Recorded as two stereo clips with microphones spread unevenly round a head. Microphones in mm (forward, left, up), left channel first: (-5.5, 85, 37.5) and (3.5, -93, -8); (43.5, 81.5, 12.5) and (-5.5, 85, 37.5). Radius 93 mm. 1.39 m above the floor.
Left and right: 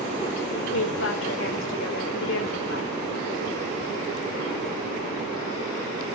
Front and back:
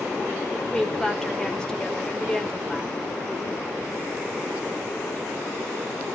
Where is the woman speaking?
75° left, 4.5 m.